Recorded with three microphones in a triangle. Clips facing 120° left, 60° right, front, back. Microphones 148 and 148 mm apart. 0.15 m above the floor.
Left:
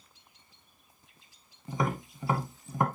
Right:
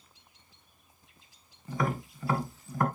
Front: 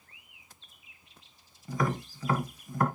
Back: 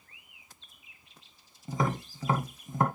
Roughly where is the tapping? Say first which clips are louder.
Even, even; behind left.